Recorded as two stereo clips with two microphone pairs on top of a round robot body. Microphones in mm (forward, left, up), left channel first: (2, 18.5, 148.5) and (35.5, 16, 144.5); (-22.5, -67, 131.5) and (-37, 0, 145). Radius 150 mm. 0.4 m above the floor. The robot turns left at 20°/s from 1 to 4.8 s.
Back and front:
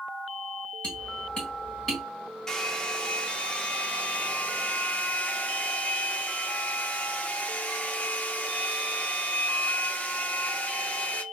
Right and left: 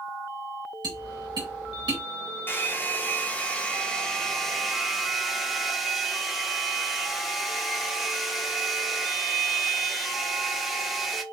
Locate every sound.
0.8 s tapping: 120° left, 2 m; by 2.0 s 100° left, 2 m
2.5 s a hair dryer: 110° right, 1.2 m; by 11.2 s 155° right, 1.2 m